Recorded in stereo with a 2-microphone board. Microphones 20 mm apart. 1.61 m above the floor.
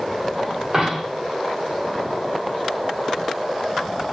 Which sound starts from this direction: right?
A dropped coin, at 0.7 s.